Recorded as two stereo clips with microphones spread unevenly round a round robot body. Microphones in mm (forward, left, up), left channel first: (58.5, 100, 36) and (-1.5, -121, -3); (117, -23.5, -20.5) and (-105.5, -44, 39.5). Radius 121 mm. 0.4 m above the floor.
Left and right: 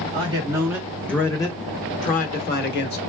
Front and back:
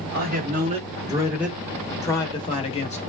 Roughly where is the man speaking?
Behind right.